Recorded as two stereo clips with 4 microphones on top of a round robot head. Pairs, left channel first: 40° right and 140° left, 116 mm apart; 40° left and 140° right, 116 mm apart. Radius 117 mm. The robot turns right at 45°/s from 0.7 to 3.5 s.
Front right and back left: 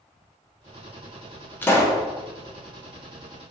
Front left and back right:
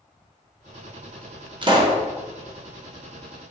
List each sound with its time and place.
1.6 s a pop: 110° right, 0.9 m; by 2.0 s 90° right, 0.9 m